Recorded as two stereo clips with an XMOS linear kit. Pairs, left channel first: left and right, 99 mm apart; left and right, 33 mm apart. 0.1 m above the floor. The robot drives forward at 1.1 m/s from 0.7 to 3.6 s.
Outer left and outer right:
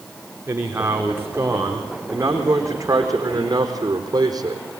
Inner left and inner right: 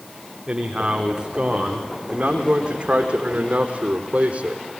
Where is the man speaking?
25° right (ahead or behind), 7 m; by 4.7 s 40° right (ahead or behind), 4.5 m.